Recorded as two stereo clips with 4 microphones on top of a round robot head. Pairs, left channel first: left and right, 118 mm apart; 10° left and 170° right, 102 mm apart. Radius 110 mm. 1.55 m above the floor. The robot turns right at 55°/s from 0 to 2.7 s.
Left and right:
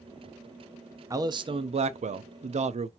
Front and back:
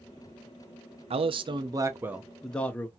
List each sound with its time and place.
1.1 s a man speaking: 155° right, 0.5 m; by 2.9 s 65° right, 0.5 m